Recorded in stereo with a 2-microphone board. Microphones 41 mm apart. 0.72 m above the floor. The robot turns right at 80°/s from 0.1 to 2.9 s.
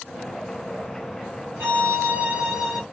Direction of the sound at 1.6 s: 105° right.